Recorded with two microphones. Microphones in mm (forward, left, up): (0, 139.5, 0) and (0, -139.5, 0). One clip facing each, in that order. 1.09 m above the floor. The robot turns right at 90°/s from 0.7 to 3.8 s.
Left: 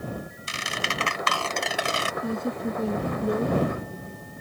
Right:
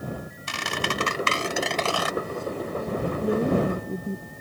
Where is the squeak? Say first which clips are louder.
Right 6 dB; 85° right; by 2.1 s 40° left.